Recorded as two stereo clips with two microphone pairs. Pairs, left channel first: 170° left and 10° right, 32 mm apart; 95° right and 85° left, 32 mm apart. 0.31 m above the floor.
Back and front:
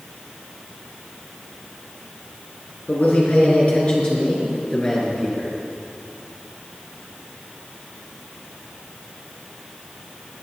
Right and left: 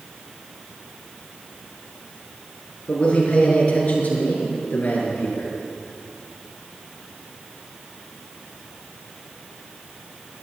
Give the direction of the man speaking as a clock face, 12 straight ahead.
5 o'clock.